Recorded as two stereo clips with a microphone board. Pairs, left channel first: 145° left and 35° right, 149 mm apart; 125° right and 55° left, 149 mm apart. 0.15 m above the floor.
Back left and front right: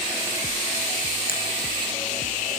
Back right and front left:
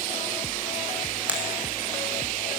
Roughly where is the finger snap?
Behind left.